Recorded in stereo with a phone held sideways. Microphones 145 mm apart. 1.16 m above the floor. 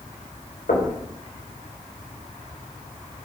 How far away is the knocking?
About 4 m.